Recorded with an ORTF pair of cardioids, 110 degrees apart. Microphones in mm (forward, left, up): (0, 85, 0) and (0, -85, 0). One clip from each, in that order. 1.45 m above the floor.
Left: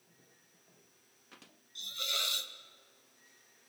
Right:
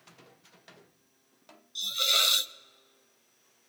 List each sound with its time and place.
1.8 s a hiss: 40° right, 0.6 m